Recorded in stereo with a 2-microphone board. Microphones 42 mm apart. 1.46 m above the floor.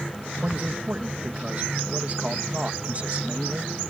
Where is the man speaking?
30° right (ahead or behind).